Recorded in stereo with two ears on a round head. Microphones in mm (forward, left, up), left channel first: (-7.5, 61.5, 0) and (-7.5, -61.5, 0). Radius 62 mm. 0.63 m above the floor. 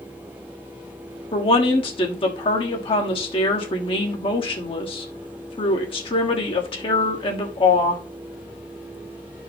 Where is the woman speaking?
40° left (ahead or behind), 1.3 m.